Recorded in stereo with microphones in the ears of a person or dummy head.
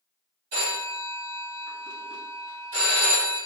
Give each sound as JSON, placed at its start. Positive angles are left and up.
{"t": 0.5, "sound": "a phone ringing", "side_deg": -35, "distance_m": 1.6}